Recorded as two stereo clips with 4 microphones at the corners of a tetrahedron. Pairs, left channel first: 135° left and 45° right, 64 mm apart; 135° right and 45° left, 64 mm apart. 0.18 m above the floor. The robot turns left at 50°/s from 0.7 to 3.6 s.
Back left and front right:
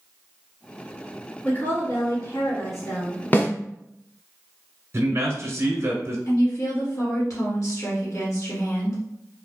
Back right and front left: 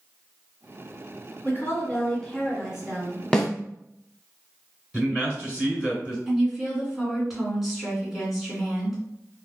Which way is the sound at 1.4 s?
170° right.